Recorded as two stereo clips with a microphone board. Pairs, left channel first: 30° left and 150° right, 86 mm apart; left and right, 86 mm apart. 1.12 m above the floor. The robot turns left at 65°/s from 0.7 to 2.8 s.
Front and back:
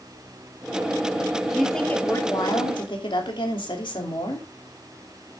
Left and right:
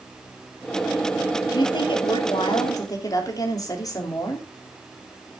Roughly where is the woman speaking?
Behind left.